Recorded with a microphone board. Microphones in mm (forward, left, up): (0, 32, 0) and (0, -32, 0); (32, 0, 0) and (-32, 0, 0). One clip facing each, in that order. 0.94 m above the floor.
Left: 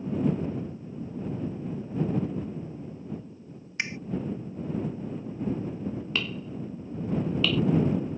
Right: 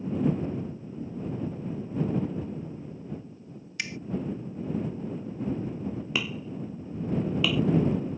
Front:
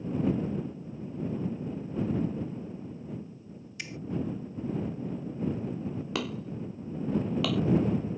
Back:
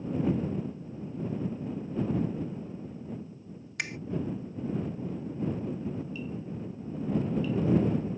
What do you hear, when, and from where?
3.8 s a finger snap: 150° left
6.2 s hammering: 10° right